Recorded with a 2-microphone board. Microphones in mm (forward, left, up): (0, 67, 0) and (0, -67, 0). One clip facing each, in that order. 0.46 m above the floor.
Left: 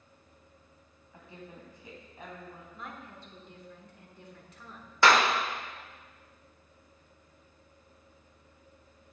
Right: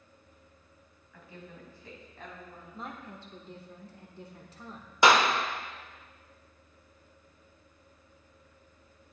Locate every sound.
1.1 s a woman speaking: 25° left (ahead or behind), 2.5 m; by 2.6 s 10° left (ahead or behind), 3 m
2.7 s a woman speaking: 30° right (ahead or behind), 1.1 m
5.0 s a clap: 15° right (ahead or behind), 0.9 m